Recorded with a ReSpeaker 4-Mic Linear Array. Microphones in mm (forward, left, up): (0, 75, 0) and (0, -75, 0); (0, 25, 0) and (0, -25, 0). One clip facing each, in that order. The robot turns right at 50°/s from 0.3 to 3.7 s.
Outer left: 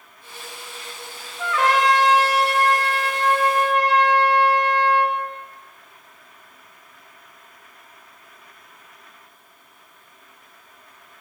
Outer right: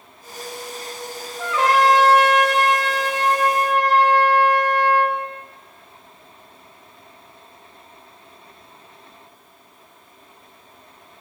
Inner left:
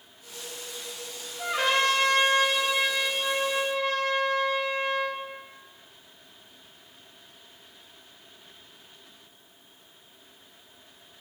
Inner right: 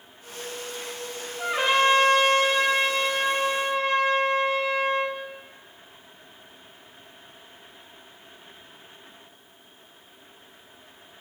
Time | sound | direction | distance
1.4 | a trumpet | 160° right | 1.9 m